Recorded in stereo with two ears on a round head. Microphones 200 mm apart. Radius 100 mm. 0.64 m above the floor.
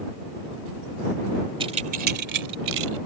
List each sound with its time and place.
1.6 s keys jangling: 25° right (ahead or behind); by 3.0 s 70° right (ahead or behind)